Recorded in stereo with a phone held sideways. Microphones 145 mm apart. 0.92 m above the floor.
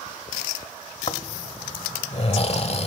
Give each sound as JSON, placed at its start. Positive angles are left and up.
{"t": 1.1, "sound": "snoring", "side_deg": 45, "distance_m": 1.0}